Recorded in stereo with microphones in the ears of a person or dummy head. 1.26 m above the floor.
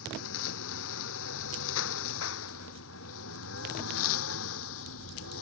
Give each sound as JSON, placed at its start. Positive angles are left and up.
{"t": 0.0, "sound": "a lawn mower", "side_deg": 85}